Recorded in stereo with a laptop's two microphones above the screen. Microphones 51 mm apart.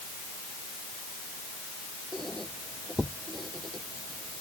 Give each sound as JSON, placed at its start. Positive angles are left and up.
{"t": 2.1, "sound": "a squeak", "side_deg": 5}